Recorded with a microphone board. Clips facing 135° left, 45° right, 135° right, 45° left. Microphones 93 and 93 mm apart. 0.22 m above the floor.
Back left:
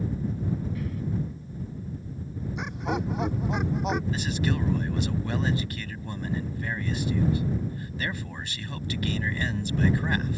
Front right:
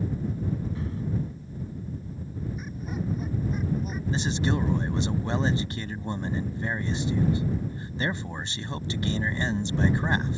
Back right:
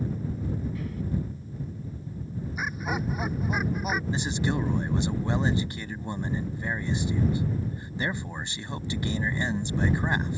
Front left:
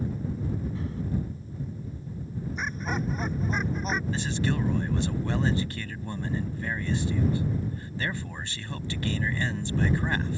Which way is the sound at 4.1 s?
85° right.